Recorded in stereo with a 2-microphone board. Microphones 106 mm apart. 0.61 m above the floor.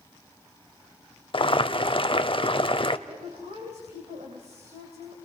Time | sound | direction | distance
1.3 | boiling | 50° left (ahead or behind) | 0.6 m
3.1 | a woman speaking | 75° right (ahead or behind) | 3.5 m